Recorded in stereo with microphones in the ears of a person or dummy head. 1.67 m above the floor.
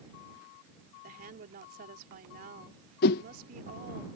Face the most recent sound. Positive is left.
turn(degrees=55)  # may be behind; listen again after turning